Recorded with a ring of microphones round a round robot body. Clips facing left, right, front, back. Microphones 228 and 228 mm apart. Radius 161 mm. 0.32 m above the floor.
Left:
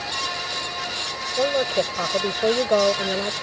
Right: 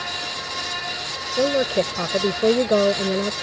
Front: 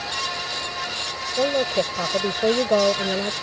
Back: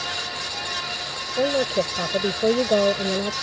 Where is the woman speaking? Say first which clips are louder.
Right 2 dB, even; 105° right.